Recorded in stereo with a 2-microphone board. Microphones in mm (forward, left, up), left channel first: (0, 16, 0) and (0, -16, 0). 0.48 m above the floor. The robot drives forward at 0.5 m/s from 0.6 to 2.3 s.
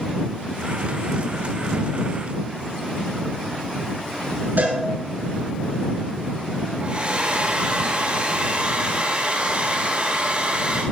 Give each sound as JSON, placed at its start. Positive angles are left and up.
{"t": 4.6, "sound": "a cowbell", "side_deg": -80, "distance_m": 6.5}
{"t": 6.8, "sound": "a hair dryer", "side_deg": -40, "distance_m": 7.5}